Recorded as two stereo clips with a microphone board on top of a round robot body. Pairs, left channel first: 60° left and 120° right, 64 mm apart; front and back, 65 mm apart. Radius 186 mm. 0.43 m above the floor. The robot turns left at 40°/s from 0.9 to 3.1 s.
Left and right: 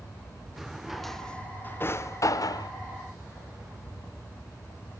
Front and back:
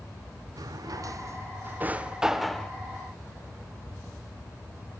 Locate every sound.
0.6 s a drawer: 155° left, 0.7 m; by 2.7 s 80° left, 0.7 m